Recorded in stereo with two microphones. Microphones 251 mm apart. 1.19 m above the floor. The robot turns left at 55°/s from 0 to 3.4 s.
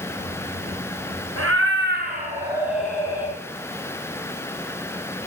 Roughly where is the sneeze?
No sneeze in this recording.